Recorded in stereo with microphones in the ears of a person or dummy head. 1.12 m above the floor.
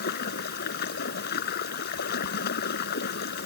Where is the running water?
60° left (ahead or behind).